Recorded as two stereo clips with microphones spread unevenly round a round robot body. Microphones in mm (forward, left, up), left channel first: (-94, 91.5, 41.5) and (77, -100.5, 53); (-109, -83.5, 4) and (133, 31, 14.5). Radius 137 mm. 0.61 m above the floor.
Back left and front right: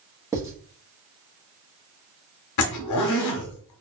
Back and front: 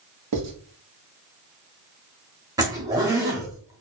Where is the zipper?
105° left, 0.9 m.